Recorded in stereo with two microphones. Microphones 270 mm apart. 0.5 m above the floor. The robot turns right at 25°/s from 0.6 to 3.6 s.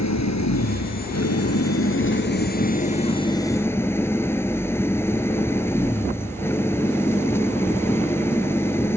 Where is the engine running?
95° left; by 9.0 s 170° left.